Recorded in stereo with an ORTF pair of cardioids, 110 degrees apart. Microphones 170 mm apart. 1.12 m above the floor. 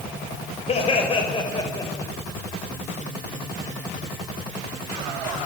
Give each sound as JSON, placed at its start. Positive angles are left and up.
{"t": 0.7, "sound": "laughter", "azimuth_deg": 40, "distance_m": 6.0}